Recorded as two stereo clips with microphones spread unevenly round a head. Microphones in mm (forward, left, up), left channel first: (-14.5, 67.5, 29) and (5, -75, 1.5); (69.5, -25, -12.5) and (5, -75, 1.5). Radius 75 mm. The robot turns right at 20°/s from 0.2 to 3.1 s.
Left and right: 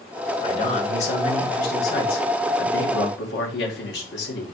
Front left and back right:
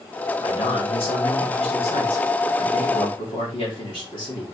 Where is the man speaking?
45° left, 2.5 m; by 4.4 s 95° left, 2.5 m.